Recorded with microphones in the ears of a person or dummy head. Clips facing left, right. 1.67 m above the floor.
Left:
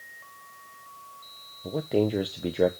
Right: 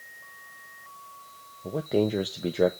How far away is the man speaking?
About 0.7 m.